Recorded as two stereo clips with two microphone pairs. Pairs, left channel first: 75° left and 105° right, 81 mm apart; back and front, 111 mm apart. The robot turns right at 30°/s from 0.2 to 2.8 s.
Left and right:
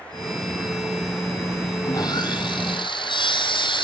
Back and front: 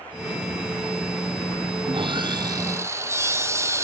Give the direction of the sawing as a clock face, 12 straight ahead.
11 o'clock.